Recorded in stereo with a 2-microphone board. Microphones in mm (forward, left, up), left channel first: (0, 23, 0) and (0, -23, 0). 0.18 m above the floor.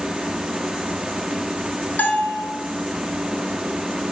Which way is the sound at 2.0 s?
40° left (ahead or behind).